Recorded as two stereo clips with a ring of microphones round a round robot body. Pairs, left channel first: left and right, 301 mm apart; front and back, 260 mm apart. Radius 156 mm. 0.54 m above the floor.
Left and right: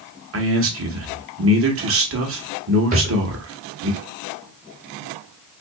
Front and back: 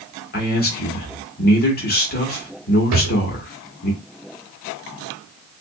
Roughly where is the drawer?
Behind right.